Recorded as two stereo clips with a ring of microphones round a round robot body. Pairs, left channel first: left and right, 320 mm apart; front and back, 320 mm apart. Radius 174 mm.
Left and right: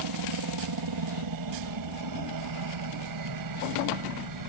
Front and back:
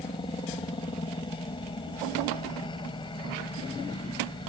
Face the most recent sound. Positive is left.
turn(degrees=-75)